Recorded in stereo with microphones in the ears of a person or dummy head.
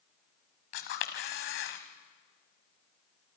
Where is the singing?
I don't hear singing.